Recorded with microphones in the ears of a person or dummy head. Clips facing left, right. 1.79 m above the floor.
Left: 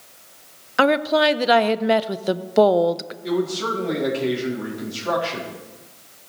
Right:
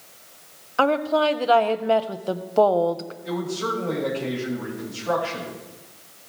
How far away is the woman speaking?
About 0.6 m.